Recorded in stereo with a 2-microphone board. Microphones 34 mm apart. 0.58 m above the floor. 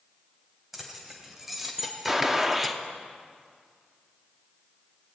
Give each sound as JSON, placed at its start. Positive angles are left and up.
{"t": 0.7, "sound": "keys jangling", "side_deg": -15, "distance_m": 2.5}
{"t": 2.1, "sound": "a gunshot", "side_deg": -10, "distance_m": 1.0}